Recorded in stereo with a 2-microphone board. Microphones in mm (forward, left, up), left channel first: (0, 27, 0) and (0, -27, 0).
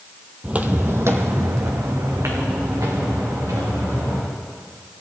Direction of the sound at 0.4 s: 20° right (ahead or behind).